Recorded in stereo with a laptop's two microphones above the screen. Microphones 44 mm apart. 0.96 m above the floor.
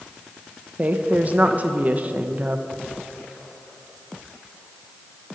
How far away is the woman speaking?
About 0.8 m.